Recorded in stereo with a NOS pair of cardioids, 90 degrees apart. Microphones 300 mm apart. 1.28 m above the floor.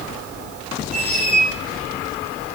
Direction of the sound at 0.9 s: 25° right.